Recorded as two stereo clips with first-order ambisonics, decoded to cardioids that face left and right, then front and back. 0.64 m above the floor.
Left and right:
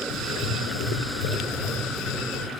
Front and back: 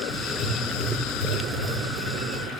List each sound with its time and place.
0.1 s writing: 100° left, 0.7 m